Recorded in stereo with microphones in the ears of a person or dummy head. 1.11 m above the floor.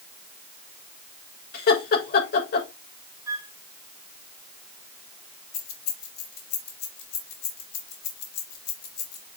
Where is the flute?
20° right (ahead or behind), 1.5 m.